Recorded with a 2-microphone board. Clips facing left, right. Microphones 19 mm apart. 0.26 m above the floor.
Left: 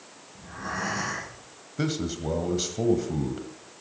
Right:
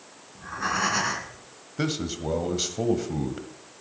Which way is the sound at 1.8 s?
15° right (ahead or behind).